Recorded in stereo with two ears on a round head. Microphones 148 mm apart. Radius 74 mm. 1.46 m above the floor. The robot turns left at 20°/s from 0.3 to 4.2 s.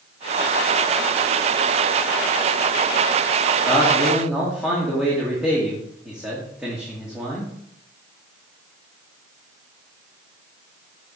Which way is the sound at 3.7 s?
5° left (ahead or behind).